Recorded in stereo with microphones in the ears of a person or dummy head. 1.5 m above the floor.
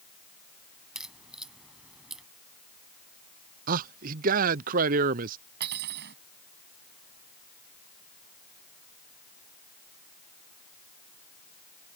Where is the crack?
Centre (ahead or behind).